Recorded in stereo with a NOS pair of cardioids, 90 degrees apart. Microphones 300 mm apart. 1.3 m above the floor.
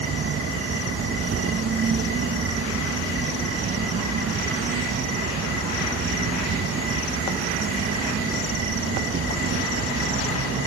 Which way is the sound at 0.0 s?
40° right.